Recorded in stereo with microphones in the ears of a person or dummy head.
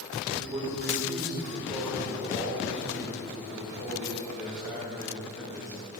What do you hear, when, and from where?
0.3 s a man speaking: 20° right (ahead or behind), 4 m; by 5.8 s 35° left (ahead or behind), 7 m